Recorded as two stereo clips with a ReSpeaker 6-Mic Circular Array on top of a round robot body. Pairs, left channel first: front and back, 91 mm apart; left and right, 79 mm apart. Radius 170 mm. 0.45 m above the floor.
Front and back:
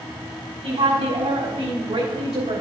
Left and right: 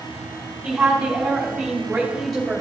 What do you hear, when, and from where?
0.6 s a woman speaking: 175° right, 4.5 m; by 2.6 s straight behind, 2.5 m